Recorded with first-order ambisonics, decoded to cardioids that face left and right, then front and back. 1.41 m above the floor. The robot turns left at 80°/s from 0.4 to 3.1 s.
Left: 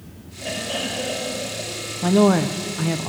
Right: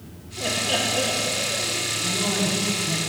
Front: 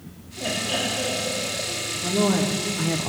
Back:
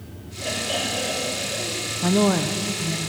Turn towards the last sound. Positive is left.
turn(degrees=45)